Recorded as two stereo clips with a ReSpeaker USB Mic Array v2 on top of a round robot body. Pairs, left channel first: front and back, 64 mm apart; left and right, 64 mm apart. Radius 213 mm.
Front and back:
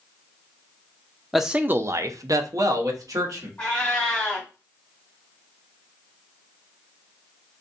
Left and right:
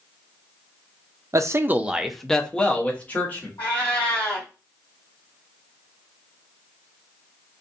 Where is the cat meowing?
65° left, 1.7 m.